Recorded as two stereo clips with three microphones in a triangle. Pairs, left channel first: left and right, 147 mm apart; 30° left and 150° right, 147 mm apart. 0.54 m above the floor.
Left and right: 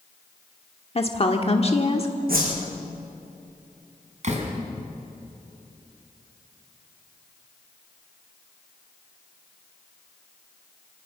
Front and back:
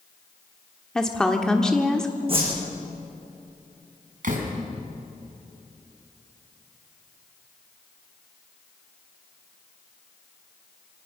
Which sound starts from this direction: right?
A whoosh, at 2.3 s.